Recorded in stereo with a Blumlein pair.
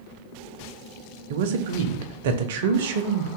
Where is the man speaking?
55° right, 0.6 m.